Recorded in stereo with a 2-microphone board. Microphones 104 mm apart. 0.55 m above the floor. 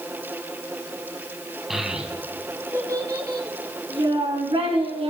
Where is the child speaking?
Centre (ahead or behind), 3 m; by 5.1 s 65° right (ahead or behind), 5 m.